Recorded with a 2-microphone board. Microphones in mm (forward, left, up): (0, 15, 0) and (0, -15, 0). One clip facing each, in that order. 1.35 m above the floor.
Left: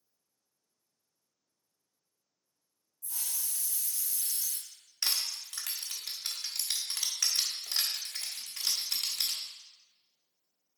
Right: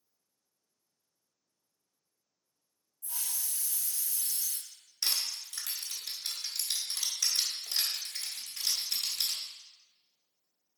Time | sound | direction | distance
3.0 | a hiss | 35° right (ahead or behind) | 1.8 m
5.0 | crushing | 50° left (ahead or behind) | 1.5 m